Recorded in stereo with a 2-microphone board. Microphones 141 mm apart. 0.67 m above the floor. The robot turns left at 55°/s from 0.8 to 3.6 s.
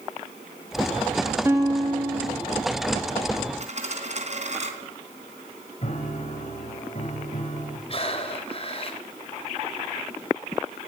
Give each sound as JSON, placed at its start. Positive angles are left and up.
{"t": 1.4, "sound": "a guitar", "azimuth_deg": -15, "distance_m": 3.0}
{"t": 3.6, "sound": "a dropped coin", "side_deg": -50, "distance_m": 3.0}
{"t": 5.8, "sound": "a piano", "side_deg": 50, "distance_m": 3.0}
{"t": 7.9, "sound": "breathing", "side_deg": 45, "distance_m": 3.0}